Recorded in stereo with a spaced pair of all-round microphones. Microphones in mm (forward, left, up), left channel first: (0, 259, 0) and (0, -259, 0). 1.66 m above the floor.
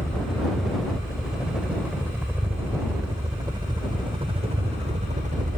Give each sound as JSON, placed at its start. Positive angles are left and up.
{"t": 0.0, "sound": "a helicopter", "side_deg": 0}